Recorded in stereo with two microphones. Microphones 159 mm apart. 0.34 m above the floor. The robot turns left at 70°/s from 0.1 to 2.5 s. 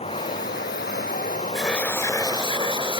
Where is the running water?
140° left; by 3.0 s 30° right.